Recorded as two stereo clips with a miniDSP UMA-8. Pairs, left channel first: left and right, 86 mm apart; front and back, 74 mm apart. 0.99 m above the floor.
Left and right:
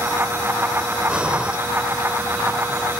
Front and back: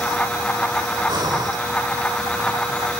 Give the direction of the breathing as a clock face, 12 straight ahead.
6 o'clock.